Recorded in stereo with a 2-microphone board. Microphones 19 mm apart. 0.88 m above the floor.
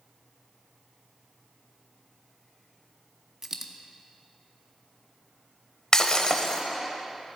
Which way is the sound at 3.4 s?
30° right (ahead or behind).